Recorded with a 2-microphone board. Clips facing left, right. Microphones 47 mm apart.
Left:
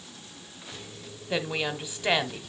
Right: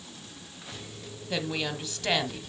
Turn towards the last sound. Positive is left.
turn(degrees=15)  # may be behind; listen again after turning